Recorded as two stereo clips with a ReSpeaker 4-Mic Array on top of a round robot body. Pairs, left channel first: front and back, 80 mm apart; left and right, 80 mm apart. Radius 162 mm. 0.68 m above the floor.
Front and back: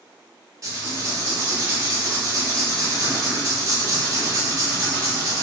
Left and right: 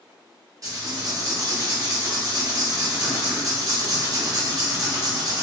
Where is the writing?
135° right, 0.9 m.